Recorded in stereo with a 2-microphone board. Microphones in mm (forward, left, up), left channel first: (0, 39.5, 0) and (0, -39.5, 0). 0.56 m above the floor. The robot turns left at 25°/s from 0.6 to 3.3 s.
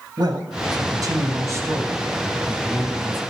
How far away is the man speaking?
About 3 m.